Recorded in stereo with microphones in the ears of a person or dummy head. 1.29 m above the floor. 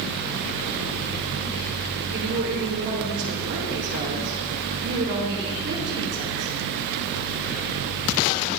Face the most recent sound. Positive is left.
turn(degrees=-55)  # may be behind; listen again after turning